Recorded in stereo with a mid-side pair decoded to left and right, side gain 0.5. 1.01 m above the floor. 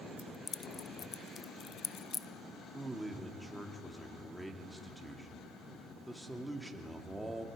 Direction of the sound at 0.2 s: 40° left.